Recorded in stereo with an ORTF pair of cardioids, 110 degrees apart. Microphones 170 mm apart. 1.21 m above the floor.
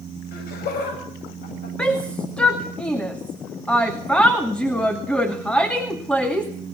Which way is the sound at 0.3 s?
65° left.